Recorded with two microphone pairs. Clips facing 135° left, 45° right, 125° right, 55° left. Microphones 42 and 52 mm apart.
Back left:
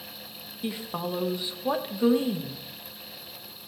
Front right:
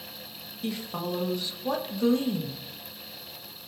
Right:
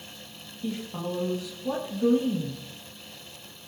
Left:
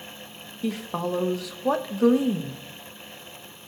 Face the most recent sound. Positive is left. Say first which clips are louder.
# even, left 4 dB
turn(degrees=60)